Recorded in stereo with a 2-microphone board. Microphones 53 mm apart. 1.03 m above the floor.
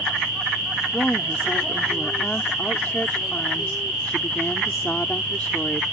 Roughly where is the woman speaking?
Left.